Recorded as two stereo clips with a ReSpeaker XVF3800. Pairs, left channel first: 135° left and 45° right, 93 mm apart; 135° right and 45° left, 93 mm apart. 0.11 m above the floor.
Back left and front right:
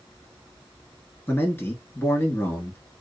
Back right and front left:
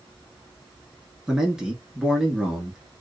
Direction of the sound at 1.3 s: 115° left.